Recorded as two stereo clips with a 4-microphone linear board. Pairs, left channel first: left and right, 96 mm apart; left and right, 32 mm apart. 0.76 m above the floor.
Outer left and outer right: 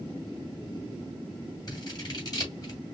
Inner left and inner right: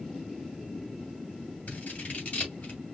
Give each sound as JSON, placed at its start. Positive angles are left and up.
{"t": 1.7, "sound": "scissors", "side_deg": 45, "distance_m": 2.5}